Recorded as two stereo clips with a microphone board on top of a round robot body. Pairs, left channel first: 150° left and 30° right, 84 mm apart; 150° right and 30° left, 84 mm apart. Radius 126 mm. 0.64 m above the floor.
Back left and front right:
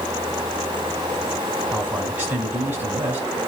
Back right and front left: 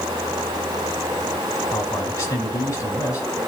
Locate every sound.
1.7 s a man speaking: 90° right, 6.5 m